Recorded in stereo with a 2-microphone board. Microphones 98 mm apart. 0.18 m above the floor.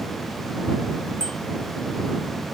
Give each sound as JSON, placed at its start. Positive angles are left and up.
{"t": 1.2, "sound": "a bicycle bell", "side_deg": -75}